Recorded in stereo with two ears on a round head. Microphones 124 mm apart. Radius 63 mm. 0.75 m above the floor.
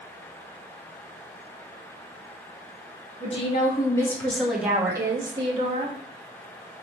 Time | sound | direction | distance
3.2 | a woman speaking | 45° left (ahead or behind) | 1.5 m